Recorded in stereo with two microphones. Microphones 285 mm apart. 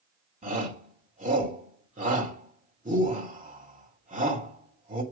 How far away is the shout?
About 2.5 m.